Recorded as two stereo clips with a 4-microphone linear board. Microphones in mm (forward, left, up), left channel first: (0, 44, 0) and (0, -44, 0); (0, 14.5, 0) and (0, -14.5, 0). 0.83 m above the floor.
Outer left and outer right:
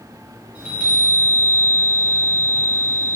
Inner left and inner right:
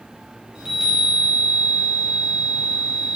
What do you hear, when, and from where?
0.6 s a chime: 20° right (ahead or behind), 0.9 m